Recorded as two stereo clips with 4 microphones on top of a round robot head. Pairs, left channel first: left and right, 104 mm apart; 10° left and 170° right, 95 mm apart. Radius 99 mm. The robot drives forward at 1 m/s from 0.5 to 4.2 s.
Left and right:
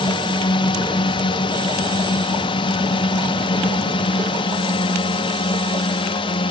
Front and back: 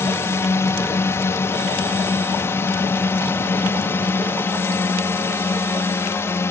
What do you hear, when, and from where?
0.0 s a drone: 65° left; by 6.5 s 70° left